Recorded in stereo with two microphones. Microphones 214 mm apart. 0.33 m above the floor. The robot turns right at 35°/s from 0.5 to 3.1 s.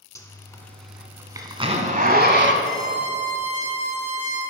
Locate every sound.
0.1 s a zipper: 15° left (ahead or behind), 0.9 m; by 2.5 s 55° right (ahead or behind), 0.9 m
2.6 s a violin: 15° right (ahead or behind), 2.5 m; by 4.4 s 30° right (ahead or behind), 2.5 m